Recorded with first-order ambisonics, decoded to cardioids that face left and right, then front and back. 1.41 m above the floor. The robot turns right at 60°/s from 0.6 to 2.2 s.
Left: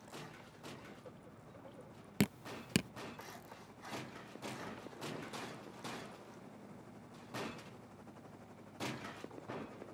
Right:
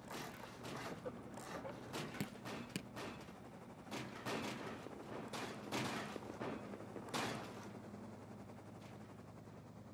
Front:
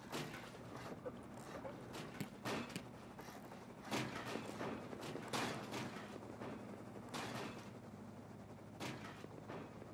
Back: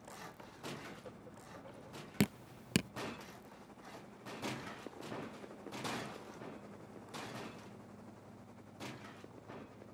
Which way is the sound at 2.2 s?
140° left.